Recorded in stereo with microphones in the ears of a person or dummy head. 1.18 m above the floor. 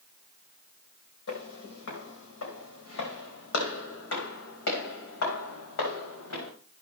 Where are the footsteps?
70° left (ahead or behind), 3.5 m.